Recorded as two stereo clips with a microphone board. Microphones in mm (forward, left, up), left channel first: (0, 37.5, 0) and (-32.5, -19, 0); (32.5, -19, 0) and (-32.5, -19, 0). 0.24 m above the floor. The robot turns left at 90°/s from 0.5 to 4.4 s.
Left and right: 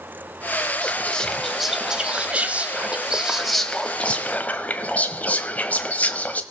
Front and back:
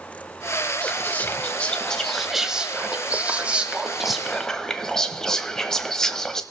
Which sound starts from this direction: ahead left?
Whispering, at 0.8 s.